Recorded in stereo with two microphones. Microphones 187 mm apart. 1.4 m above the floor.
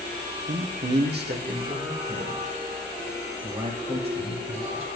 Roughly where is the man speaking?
Right.